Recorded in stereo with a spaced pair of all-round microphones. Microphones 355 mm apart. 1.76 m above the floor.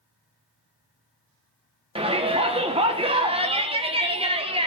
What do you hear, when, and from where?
1.9 s a shout: 15° right (ahead or behind), 1.2 m